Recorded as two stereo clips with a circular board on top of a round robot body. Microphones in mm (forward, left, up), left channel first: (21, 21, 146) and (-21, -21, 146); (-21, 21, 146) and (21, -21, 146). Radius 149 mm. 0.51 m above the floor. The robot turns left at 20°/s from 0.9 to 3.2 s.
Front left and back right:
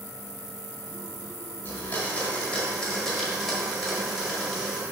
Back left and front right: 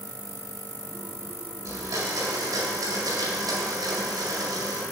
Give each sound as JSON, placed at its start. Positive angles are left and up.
{"t": 1.6, "sound": "a blender", "azimuth_deg": -15, "distance_m": 1.8}